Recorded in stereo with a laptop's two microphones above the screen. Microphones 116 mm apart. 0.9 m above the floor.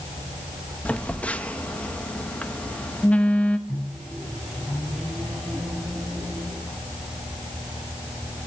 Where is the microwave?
Centre (ahead or behind), 7.5 m.